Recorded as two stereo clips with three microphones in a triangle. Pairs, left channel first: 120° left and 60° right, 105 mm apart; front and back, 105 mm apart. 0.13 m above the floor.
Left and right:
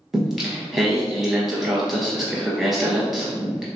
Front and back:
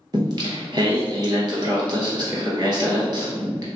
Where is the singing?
145° right, 1.2 m.